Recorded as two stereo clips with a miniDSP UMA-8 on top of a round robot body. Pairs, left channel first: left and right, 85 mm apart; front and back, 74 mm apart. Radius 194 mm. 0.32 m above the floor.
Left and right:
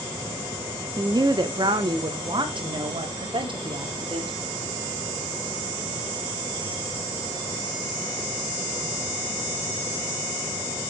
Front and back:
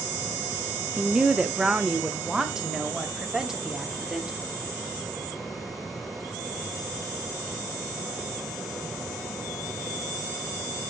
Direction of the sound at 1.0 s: 105° right.